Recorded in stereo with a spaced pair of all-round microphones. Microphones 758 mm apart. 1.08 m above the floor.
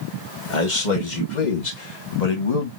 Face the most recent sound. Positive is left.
turn(degrees=50)  # may be behind; listen again after turning